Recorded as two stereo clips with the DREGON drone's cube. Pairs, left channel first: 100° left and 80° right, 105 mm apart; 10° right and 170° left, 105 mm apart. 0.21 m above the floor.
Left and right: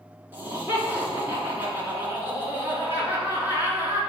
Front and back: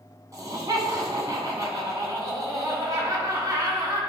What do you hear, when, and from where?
0.3 s laughter: 140° right, 2.5 m